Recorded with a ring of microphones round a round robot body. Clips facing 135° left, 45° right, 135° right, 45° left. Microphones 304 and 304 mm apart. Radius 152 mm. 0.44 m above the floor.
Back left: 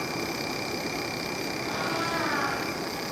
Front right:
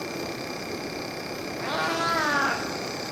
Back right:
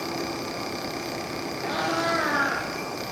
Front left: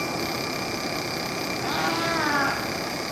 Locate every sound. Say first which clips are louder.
1.6 s a cat meowing: front right 1 dB, back right 1 dB; 20° right, 6.5 m; by 2.7 s 25° right, 7.5 m